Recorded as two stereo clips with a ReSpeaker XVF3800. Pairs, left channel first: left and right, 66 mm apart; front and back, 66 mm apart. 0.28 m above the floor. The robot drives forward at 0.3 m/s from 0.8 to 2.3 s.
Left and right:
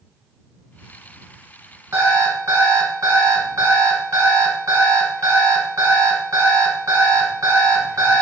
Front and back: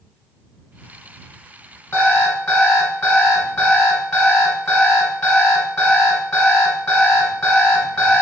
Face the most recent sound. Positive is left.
turn(degrees=-65)